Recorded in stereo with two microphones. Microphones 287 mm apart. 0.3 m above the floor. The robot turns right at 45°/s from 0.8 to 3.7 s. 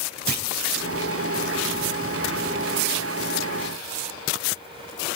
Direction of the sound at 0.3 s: 35° right (ahead or behind).